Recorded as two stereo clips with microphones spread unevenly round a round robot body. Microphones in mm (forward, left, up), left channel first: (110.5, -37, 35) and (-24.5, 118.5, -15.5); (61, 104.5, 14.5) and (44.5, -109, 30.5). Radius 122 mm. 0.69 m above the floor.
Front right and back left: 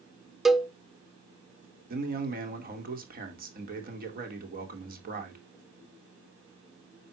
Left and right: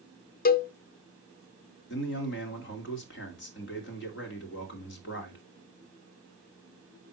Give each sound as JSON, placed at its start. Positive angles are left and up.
{"t": 0.5, "sound": "a cowbell", "azimuth_deg": 40, "distance_m": 0.6}
{"t": 1.9, "sound": "a man speaking", "azimuth_deg": 105, "distance_m": 2.0}